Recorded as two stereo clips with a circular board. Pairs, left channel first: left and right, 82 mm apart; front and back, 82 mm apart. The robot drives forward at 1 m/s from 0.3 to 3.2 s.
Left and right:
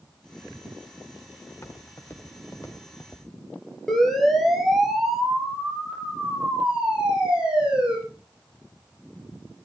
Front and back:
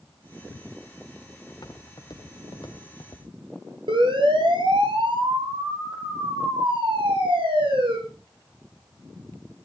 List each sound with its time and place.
1.5 s footsteps: 35° left, 4.5 m; by 3.2 s 30° left, 2.5 m
3.9 s a siren: 175° left, 5.5 m; by 8.0 s 165° right, 10.5 m